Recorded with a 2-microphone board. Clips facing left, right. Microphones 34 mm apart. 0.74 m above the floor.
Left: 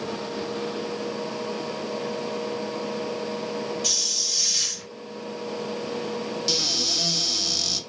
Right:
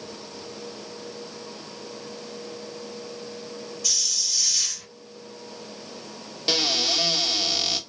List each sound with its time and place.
3.8 s a hiss: 45° left (ahead or behind), 1.2 m
6.5 s a cupboard door: 35° right (ahead or behind), 1.0 m